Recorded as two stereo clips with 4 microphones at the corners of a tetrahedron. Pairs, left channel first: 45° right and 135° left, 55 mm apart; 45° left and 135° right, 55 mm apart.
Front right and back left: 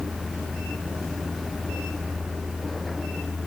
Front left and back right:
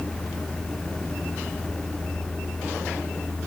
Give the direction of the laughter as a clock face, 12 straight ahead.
I don't hear laughter.